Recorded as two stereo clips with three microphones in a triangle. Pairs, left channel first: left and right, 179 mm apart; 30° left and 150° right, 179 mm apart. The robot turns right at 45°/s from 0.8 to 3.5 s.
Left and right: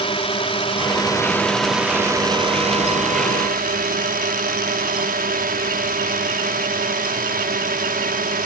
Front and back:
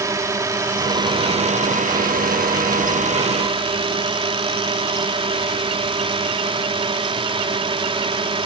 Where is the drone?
140° left; by 8.5 s 95° right.